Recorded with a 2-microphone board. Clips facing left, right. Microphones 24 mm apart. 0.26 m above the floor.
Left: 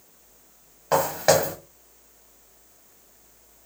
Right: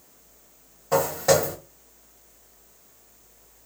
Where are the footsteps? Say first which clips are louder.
Left 1 dB; 50° left (ahead or behind), 1.6 m.